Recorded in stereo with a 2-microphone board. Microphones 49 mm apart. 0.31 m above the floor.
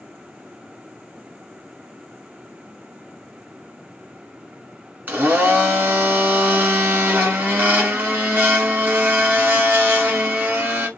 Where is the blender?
40° right (ahead or behind), 1.5 m.